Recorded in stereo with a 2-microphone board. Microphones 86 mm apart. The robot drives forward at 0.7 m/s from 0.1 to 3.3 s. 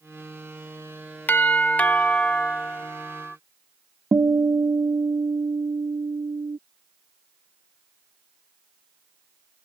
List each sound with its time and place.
1.3 s a doorbell: 20° left (ahead or behind); by 3.4 s 10° left (ahead or behind)
4.1 s a guitar: 40° right (ahead or behind)